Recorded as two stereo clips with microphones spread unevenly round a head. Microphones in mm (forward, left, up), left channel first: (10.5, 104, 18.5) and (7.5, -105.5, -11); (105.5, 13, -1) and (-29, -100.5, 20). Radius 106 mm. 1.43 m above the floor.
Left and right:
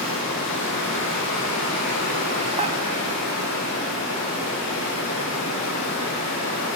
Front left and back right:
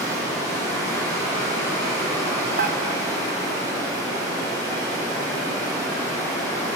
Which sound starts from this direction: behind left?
Running water, at 0.0 s.